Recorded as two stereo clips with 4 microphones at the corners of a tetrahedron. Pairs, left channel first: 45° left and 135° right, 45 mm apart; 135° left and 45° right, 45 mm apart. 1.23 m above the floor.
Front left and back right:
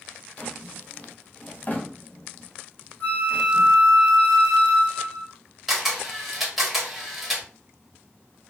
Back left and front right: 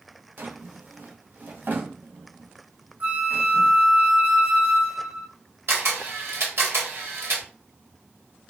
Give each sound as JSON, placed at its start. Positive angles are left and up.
{"t": 0.4, "sound": "a drawer", "azimuth_deg": -5, "distance_m": 0.8}
{"t": 3.0, "sound": "a flute", "azimuth_deg": 0, "distance_m": 2.0}
{"t": 5.7, "sound": "a camera shutter", "azimuth_deg": -50, "distance_m": 1.2}